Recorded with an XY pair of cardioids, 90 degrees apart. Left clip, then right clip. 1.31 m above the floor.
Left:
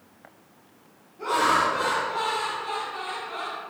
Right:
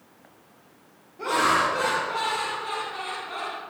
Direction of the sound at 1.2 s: 50° right.